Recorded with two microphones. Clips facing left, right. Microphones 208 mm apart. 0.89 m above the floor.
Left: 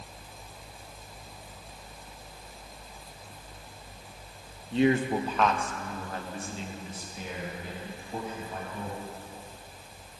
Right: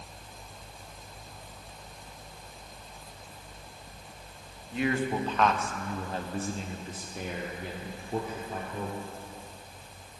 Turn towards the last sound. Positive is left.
turn(degrees=-70)  # may be behind; listen again after turning